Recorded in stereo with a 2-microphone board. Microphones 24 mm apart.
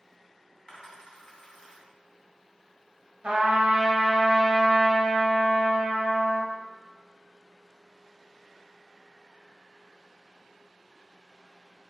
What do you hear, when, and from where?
0.7 s a dropped coin: 35° left (ahead or behind), 1.8 m
3.2 s a trumpet: 65° right (ahead or behind), 1.1 m